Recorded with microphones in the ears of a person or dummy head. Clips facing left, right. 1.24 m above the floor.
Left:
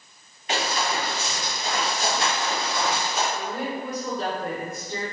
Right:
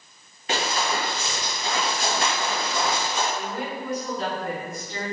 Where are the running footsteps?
35° right (ahead or behind), 1.7 m; by 3.2 s 5° left (ahead or behind), 1.2 m.